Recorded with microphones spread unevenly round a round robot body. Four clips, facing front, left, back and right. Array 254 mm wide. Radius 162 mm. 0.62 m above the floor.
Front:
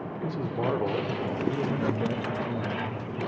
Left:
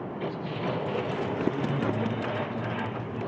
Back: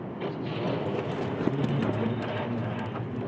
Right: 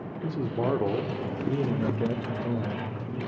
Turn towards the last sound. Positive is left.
turn(degrees=-120)